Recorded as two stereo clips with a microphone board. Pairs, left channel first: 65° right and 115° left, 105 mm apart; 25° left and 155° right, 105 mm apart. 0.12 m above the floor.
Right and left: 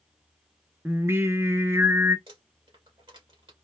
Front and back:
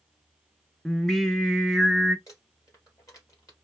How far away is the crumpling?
About 3.5 m.